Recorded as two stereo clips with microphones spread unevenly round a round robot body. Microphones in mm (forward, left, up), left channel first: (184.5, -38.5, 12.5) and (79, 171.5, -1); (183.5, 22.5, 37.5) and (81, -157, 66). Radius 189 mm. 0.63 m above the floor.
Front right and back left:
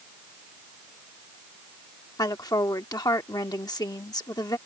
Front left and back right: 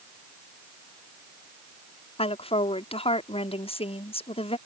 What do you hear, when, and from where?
2.2 s a woman speaking: 10° left